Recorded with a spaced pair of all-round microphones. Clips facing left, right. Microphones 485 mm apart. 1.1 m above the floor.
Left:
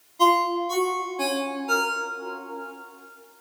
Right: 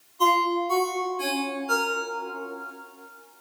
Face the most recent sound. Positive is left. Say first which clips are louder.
# left 2 dB
turn(degrees=80)